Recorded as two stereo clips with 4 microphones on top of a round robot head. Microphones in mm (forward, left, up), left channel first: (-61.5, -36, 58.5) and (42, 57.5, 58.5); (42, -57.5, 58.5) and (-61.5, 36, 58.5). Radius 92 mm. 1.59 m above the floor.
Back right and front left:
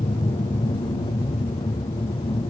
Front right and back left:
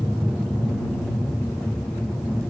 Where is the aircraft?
135° right; by 2.5 s 130° right.